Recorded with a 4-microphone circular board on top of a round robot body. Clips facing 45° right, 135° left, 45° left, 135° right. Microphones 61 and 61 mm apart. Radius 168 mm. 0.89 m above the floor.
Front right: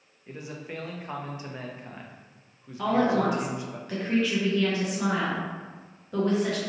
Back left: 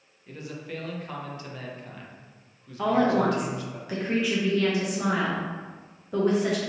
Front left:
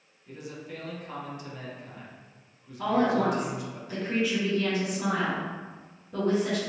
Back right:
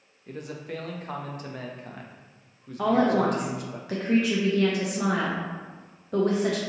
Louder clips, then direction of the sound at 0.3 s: Back left 1 dB, back right 4 dB; 110° right.